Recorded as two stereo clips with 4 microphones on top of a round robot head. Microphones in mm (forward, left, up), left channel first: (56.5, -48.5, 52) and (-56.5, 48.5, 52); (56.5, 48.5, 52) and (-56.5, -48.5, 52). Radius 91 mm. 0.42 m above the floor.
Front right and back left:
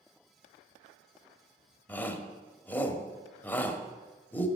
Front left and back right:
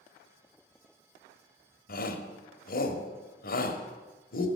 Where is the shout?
35° left, 1.7 m.